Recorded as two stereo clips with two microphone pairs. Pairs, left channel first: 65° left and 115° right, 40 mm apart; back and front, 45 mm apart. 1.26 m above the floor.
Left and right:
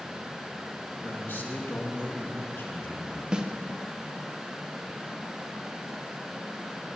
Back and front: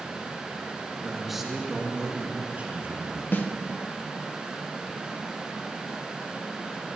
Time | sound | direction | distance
1.0 | a man speaking | 95° left | 2 m
3.3 | a snare drum | straight behind | 0.8 m